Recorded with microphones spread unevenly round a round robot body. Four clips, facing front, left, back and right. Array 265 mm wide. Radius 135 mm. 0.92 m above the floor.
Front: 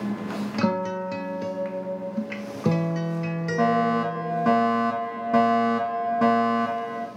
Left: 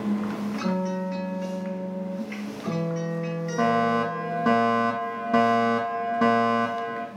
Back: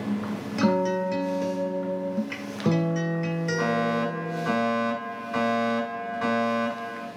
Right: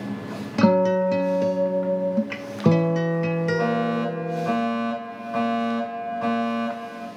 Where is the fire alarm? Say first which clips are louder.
Left 1 dB, front 5 dB; 50° left, 5 m.